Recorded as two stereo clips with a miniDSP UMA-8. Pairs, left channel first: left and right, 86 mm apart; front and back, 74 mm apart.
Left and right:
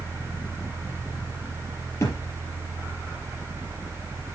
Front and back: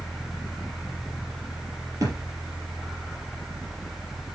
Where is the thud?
145° left, 4 m.